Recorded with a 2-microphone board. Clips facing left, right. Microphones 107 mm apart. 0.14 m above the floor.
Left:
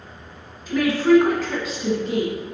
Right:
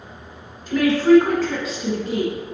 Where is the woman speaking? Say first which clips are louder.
Right 2 dB; 5° left (ahead or behind), 1.6 m; by 2.5 s 5° right (ahead or behind), 1.7 m.